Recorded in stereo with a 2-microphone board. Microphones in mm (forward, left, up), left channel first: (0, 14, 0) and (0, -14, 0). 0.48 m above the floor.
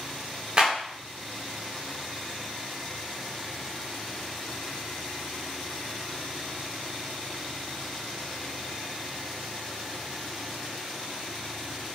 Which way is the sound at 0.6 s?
35° right (ahead or behind).